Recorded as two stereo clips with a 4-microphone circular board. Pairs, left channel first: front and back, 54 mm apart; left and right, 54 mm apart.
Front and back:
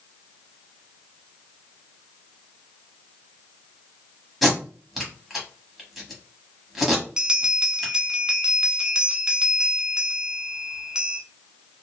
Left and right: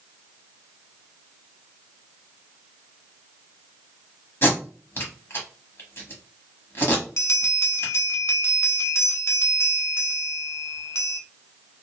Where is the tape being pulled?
95° left, 1.2 m.